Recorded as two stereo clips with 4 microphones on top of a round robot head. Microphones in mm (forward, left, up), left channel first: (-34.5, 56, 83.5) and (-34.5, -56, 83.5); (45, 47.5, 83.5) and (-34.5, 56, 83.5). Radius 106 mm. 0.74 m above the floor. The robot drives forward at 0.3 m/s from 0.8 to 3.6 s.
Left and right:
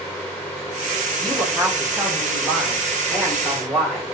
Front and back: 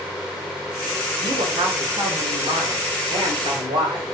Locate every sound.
1.2 s a woman speaking: 175° left, 1.8 m